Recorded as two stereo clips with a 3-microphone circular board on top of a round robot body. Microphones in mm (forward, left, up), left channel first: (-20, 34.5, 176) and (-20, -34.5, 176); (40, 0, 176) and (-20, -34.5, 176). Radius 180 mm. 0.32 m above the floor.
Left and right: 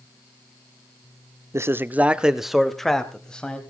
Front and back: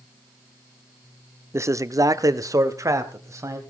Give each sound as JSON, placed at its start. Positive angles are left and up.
{"t": 1.5, "sound": "a man speaking", "azimuth_deg": -120, "distance_m": 1.1}